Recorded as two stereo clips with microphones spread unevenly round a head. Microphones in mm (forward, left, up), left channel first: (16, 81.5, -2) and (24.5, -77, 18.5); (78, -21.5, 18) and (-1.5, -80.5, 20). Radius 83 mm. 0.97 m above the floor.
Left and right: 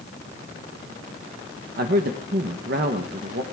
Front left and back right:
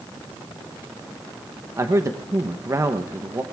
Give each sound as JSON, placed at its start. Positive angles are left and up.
{"t": 1.8, "sound": "a man speaking", "azimuth_deg": -90, "distance_m": 0.8}